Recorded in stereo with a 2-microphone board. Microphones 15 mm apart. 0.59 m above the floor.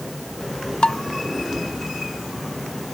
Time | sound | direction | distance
0.8 | dishes clattering | 75° left (ahead or behind) | ?